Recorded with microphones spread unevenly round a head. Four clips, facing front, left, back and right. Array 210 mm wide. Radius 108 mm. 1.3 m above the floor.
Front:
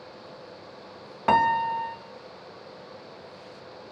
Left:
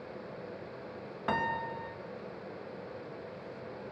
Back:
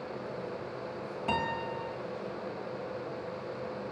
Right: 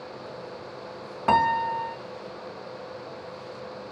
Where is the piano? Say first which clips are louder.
Right 12 dB, front 12 dB; 35° right, 1.2 m.